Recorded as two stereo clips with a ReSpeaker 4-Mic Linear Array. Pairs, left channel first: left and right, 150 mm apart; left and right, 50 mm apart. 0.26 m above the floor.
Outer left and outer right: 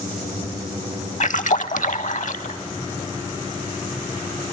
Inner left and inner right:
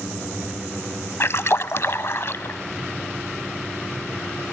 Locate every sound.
1.2 s a splash: 55° left (ahead or behind), 0.6 m